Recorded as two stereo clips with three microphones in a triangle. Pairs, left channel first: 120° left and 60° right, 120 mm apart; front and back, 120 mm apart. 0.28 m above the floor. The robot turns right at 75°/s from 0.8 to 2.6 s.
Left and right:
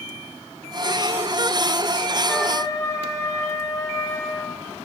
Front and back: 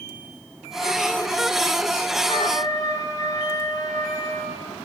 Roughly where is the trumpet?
Ahead left.